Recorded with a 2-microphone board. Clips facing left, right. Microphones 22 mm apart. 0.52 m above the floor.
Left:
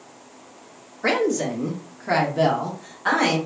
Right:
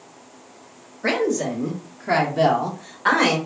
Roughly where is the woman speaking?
Left.